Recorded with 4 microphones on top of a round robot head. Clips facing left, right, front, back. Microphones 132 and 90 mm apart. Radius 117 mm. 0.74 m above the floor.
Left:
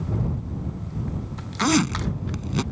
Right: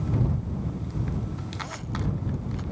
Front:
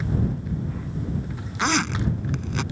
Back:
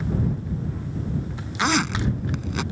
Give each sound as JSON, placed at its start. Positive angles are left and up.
{"t": 1.6, "sound": "a zipper", "azimuth_deg": 90}